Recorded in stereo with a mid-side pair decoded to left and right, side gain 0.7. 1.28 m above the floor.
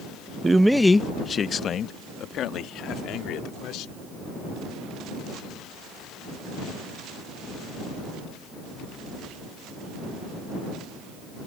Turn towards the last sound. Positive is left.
turn(degrees=60)